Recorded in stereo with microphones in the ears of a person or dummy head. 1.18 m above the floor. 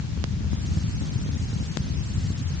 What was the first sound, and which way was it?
Only background noise.